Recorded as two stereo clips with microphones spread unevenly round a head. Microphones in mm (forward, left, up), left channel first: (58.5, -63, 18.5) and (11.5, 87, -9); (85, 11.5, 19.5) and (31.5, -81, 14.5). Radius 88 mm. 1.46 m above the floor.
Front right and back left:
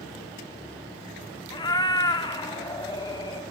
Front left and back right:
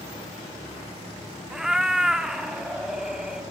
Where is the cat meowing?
35° right, 1.2 m.